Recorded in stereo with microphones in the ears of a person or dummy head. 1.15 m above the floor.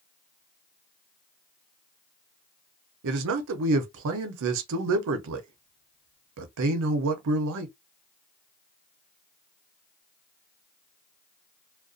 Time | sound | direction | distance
3.0 | a man speaking | 65° right (ahead or behind) | 0.6 m